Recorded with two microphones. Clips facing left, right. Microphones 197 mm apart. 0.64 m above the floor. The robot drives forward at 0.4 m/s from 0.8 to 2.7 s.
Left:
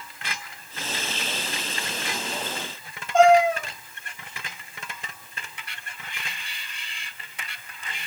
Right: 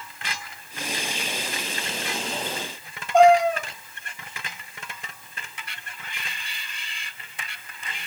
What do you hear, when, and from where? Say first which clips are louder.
3.1 s a cat meowing: right 1 dB; 60° right (ahead or behind), 2.5 m